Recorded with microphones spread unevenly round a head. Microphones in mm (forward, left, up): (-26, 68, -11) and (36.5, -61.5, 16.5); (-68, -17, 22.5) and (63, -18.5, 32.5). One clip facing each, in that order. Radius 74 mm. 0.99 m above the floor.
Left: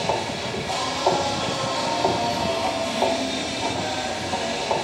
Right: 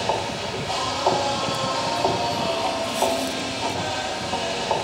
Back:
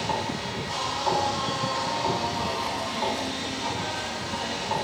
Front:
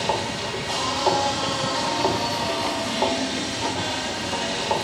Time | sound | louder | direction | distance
0.0 | a machine running | even, front 3 dB | 35° left | 2 m